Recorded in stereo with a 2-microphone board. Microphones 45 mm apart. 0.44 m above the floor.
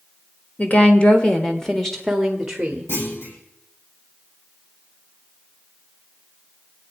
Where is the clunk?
70° left (ahead or behind), 6.5 m.